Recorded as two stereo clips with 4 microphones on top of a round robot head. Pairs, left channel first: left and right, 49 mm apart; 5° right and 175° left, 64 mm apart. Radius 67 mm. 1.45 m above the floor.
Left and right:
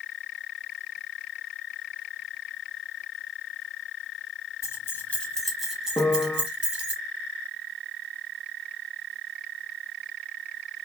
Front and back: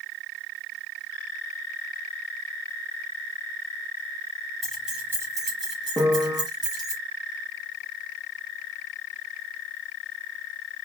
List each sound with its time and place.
4.6 s keys jangling: 80° left, 0.8 m; by 7.0 s 150° right, 1.7 m
6.0 s a piano: 130° left, 1.1 m